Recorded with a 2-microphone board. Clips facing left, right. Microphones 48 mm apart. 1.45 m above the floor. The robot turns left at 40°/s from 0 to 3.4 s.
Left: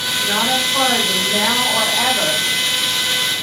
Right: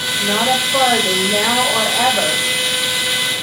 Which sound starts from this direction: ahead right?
A woman speaking, at 0.2 s.